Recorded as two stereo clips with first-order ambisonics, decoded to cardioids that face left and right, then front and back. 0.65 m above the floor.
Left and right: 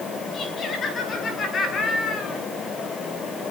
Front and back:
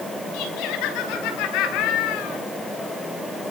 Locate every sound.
0.3 s laughter: 25° left, 4.5 m